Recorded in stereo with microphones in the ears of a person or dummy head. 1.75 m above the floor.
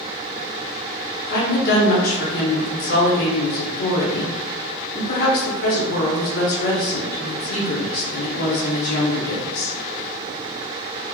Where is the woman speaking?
50° left (ahead or behind), 0.8 m.